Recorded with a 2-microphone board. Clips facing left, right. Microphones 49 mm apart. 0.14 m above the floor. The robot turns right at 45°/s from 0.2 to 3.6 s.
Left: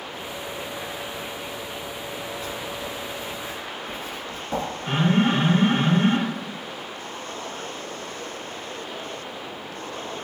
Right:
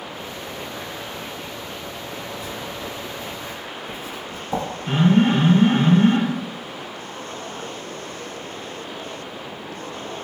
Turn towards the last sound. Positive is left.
turn(degrees=25)  # may be behind; listen again after turning